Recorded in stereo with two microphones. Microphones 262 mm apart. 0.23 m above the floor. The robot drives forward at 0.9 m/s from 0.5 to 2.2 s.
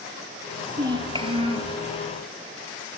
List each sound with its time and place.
0.8 s a child speaking: 15° right (ahead or behind), 3 m; by 1.8 s 25° right (ahead or behind), 2.0 m